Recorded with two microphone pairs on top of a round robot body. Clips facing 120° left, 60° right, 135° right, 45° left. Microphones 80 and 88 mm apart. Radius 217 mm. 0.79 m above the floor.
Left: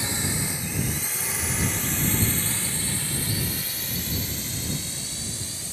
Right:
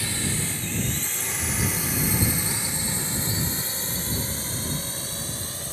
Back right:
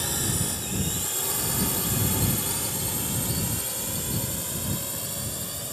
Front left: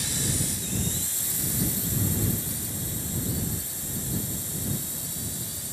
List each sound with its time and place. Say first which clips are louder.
0.0 s a drone: even, back right 1 dB; 170° right; by 5.7 s 100° right